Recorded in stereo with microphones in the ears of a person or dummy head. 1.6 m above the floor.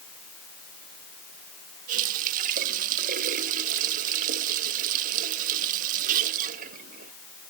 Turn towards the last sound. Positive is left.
turn(degrees=-40)  # may be behind; listen again after turning